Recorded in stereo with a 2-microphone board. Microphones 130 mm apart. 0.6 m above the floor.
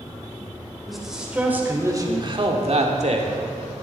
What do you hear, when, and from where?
0.9 s a man speaking: centre (ahead or behind), 2.5 m; by 3.7 s 65° right (ahead or behind), 2 m